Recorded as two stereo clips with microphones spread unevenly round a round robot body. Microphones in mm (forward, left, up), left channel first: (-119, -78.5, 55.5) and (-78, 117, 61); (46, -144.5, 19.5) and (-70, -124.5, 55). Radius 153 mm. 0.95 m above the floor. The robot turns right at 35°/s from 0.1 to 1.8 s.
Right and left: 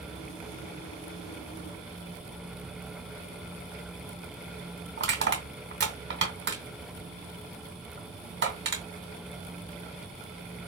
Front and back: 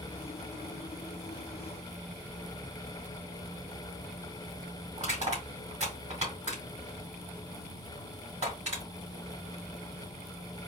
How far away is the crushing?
About 2.5 m.